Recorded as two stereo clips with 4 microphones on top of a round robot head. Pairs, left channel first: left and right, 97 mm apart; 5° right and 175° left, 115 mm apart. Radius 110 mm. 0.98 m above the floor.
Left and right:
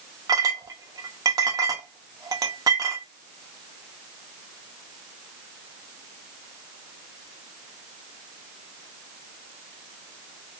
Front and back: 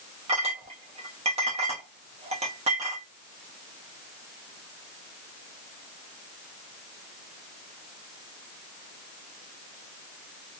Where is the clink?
140° right, 0.7 m.